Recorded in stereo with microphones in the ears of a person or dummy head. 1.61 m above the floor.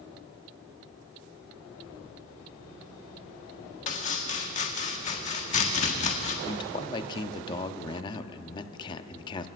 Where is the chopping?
40° left (ahead or behind), 1.4 m.